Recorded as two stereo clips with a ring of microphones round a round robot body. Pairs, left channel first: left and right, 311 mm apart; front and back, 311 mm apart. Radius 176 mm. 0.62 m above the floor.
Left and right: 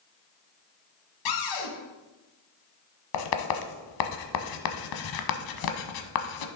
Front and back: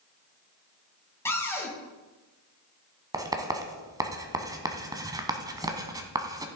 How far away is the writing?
About 1.1 m.